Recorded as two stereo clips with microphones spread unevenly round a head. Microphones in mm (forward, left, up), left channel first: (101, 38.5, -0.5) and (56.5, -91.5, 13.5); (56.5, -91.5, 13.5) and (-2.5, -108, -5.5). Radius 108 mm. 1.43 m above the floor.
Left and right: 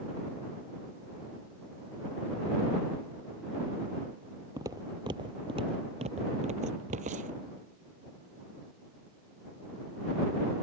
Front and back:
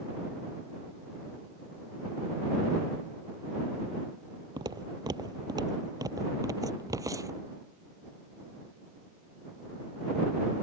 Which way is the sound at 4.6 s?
175° right.